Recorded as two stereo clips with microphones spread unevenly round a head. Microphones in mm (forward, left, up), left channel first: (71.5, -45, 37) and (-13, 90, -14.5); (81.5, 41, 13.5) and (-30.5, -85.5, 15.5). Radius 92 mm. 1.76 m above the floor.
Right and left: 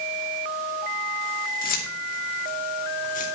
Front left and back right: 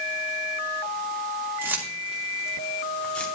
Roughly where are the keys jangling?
Ahead right.